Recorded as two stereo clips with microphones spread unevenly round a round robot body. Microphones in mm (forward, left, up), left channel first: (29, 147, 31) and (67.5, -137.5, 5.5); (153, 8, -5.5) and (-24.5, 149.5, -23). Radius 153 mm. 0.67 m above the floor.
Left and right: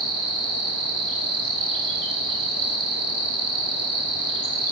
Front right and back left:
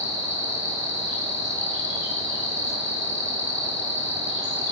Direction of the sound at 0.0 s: 115° right.